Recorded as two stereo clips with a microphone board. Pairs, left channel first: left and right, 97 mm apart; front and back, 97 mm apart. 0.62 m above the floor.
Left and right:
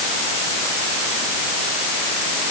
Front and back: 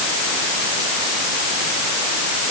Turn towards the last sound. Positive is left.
No sound to turn to.